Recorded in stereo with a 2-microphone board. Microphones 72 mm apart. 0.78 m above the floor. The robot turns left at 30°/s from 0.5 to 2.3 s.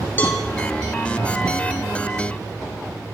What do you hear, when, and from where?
0.2 s a cowbell: 25° left (ahead or behind), 3.5 m